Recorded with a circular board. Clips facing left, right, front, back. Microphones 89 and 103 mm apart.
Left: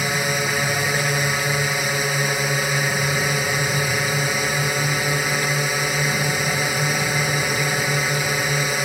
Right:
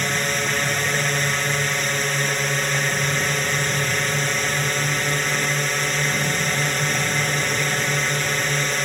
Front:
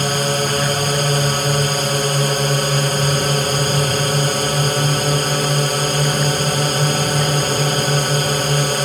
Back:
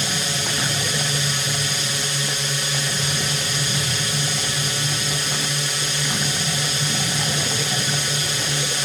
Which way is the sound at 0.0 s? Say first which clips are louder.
Left 1 dB, front 9 dB; 10° left.